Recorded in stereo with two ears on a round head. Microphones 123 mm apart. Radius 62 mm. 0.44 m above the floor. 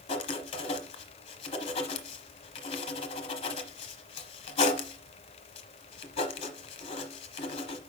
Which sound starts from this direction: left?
Writing, at 0.1 s.